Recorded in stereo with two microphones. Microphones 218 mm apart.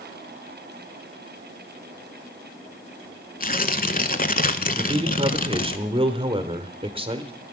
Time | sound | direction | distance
3.4 | tearing paper | 40° left (ahead or behind) | 0.7 m
4.8 | a man speaking | 25° right (ahead or behind) | 0.9 m